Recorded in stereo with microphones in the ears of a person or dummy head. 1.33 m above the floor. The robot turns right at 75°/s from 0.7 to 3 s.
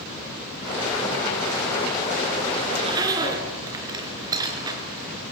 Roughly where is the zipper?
Right.